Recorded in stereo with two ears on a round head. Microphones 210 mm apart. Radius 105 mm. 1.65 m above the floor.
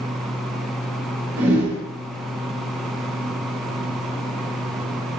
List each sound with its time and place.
1.4 s a whoosh: 10° right (ahead or behind), 1.0 m